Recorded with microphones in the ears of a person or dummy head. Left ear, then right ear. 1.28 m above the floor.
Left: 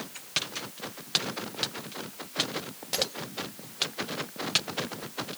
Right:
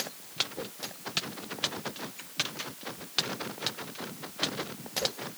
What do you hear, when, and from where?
Only background noise.